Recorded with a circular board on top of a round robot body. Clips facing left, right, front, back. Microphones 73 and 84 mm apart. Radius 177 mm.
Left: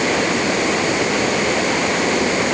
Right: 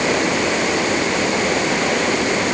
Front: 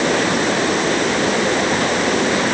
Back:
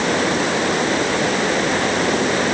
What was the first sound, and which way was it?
Only background noise.